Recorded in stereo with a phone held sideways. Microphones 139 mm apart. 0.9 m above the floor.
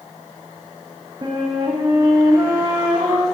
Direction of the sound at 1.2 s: 30° right (ahead or behind).